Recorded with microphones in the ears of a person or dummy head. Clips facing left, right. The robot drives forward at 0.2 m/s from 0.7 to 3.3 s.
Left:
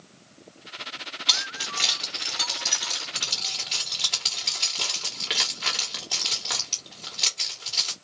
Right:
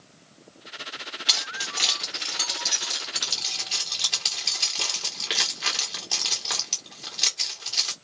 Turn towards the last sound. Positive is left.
turn(degrees=-5)  # may be behind; listen again after turning